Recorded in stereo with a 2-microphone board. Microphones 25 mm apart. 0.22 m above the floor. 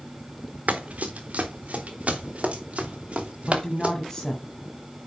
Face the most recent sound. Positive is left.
turn(degrees=25)  # may be behind; listen again after turning